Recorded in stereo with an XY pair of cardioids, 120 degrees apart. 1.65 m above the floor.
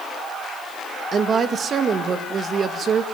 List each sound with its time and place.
1.1 s a woman speaking: 45° right, 2 m